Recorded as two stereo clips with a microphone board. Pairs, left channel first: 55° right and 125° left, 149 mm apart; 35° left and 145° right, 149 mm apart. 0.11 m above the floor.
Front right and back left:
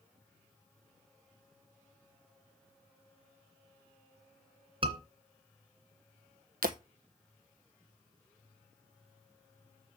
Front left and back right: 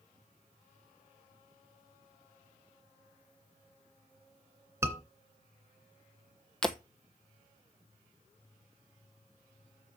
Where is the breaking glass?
120° left, 1.1 m.